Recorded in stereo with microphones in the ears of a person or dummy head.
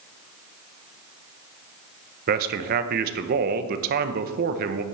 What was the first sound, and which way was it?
A man speaking, 55° right (ahead or behind).